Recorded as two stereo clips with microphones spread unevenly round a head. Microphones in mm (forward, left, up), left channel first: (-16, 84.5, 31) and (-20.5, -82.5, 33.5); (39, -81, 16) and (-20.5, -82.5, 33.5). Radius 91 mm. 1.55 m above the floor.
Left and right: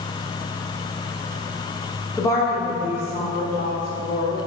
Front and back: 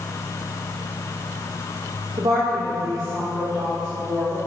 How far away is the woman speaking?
About 0.8 m.